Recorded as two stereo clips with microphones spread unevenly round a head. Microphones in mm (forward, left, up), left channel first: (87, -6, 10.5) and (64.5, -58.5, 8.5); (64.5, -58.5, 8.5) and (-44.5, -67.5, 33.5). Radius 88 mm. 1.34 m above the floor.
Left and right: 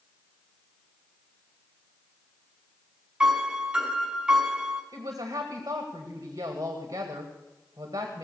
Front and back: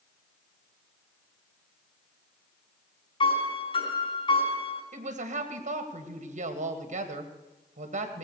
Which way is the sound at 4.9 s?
160° right.